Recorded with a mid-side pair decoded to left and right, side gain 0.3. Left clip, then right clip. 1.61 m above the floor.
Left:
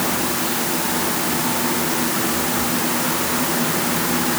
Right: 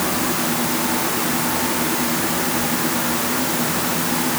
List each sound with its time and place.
Only background noise.